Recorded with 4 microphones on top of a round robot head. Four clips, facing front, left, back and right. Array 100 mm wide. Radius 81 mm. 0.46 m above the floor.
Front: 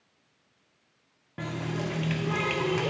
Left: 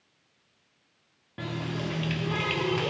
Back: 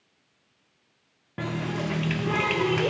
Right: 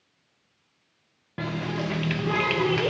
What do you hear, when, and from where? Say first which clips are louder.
1.4 s a running tap: right 4 dB, back 3 dB; 120° right, 0.6 m